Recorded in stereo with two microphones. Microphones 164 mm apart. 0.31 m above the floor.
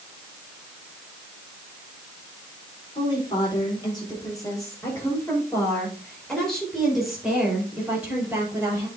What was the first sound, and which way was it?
A woman speaking, 35° left (ahead or behind).